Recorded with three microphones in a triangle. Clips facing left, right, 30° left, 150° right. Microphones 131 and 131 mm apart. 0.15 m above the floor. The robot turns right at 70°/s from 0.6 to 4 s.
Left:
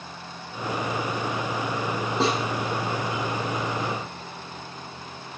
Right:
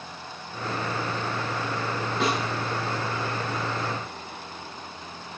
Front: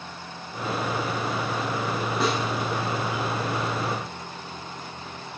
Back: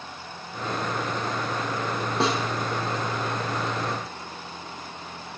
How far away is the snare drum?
About 5 m.